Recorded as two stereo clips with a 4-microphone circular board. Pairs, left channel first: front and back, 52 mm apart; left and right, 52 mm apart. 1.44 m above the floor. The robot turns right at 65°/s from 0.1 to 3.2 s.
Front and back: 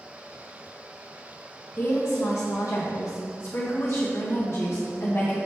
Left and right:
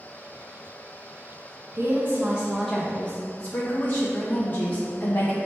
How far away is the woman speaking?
About 0.7 m.